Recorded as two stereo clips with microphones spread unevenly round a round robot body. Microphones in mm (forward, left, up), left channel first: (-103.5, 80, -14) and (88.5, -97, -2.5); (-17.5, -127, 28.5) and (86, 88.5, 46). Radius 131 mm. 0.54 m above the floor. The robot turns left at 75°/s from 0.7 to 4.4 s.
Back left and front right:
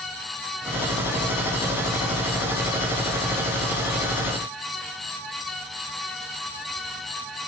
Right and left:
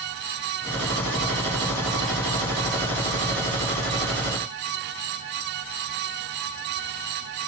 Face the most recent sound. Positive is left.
No sound to turn to.